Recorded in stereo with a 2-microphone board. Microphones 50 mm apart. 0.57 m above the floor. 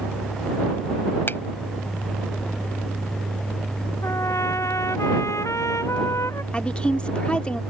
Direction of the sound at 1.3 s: 50° left (ahead or behind).